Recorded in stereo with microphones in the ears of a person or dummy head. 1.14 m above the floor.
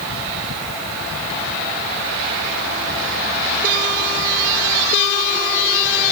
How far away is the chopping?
No chopping in this recording.